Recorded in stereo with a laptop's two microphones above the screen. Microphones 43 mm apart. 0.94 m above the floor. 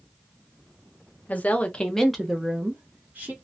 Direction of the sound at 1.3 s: 40° left (ahead or behind).